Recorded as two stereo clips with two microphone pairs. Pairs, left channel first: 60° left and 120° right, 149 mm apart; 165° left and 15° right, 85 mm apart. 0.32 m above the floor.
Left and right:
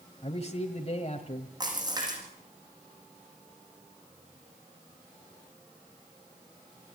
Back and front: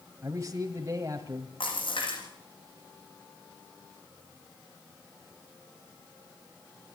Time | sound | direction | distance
0.2 | a man speaking | 30° left | 1.8 m
1.6 | a splash | straight behind | 9 m